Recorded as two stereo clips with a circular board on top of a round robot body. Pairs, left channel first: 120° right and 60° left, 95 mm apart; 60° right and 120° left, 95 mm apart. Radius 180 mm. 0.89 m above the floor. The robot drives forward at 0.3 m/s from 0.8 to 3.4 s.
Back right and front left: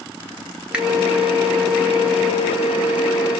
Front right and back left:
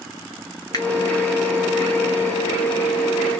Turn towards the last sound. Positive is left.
turn(degrees=-65)